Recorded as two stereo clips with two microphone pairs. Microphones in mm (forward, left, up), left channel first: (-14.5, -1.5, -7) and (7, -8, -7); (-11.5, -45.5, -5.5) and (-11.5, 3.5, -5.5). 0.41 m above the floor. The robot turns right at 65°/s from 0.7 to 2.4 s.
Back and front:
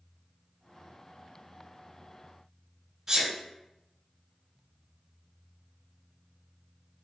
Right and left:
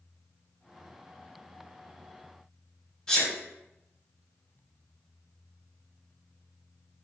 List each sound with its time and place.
3.1 s a sneeze: 40° right, 1.3 m